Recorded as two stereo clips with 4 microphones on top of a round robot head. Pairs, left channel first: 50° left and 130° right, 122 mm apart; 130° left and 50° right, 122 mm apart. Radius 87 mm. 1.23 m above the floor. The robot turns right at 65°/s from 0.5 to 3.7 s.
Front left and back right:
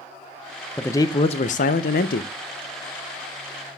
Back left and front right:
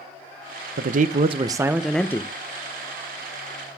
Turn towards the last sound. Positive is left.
turn(degrees=160)